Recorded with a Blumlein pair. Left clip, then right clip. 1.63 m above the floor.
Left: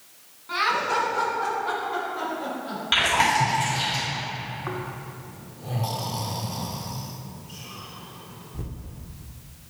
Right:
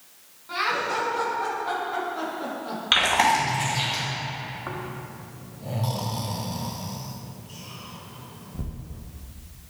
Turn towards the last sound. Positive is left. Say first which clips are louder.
# left 1 dB
turn(degrees=0)